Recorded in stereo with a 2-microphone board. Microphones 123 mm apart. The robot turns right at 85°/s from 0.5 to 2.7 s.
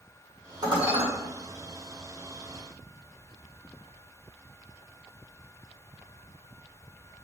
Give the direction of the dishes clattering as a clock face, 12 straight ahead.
5 o'clock.